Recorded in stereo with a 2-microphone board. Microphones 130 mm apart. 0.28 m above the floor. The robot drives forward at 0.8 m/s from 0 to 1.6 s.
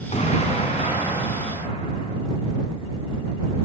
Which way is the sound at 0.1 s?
60° left (ahead or behind).